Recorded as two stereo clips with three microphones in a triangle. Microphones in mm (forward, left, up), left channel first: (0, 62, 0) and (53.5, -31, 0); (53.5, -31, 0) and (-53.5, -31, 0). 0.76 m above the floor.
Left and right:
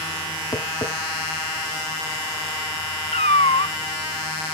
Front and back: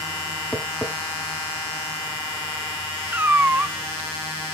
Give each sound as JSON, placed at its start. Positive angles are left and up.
{"t": 0.5, "sound": "tapping", "azimuth_deg": 75, "distance_m": 1.2}
{"t": 3.1, "sound": "a cat meowing", "azimuth_deg": 110, "distance_m": 0.7}